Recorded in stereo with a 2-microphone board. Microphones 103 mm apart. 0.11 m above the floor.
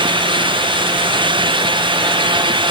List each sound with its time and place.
Only background noise.